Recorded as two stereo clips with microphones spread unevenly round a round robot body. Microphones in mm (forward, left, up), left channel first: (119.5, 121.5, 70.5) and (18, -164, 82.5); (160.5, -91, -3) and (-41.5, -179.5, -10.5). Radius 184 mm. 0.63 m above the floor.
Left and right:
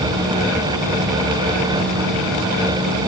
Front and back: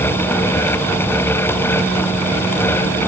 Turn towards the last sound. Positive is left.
No sound to turn to.